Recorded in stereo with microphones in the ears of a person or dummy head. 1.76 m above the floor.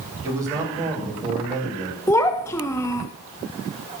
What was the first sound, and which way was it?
A man speaking, 20° right (ahead or behind).